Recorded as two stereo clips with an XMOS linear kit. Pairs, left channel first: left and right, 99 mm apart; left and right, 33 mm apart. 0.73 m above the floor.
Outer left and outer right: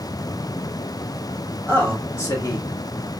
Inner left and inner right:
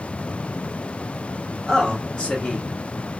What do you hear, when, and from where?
1.7 s a man speaking: 20° left (ahead or behind), 1.2 m; by 3.2 s 45° left (ahead or behind), 1.7 m